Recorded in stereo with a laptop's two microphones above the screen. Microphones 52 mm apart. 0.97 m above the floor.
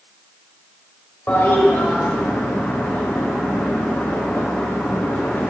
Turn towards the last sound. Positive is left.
turn(degrees=45)  # may be behind; listen again after turning